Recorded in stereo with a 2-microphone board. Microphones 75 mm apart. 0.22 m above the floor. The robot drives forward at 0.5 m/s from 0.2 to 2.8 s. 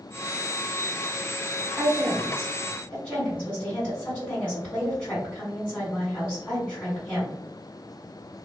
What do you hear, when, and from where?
1.7 s a woman speaking: 20° left (ahead or behind), 1.7 m